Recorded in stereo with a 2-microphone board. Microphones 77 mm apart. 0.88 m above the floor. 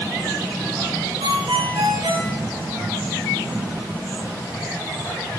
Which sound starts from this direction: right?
A ringtone, at 1.2 s.